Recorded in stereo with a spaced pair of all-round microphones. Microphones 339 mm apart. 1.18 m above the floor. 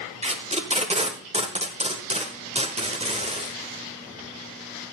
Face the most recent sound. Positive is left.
turn(degrees=-20)  # may be behind; listen again after turning